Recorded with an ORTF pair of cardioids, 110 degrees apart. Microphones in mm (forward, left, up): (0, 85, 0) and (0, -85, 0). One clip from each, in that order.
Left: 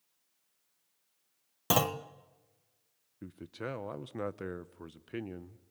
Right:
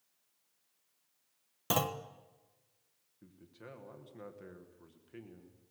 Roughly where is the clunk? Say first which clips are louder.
Left 4 dB; ahead.